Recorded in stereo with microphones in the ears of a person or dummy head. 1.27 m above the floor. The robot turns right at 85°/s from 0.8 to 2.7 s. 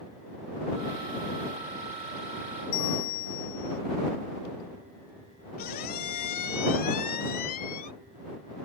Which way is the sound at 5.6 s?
45° left (ahead or behind).